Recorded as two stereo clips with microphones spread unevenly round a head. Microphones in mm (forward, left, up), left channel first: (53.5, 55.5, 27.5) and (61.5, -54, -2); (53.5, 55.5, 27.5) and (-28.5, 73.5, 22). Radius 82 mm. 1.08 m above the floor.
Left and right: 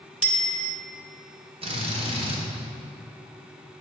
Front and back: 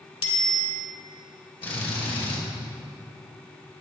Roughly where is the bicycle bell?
Ahead.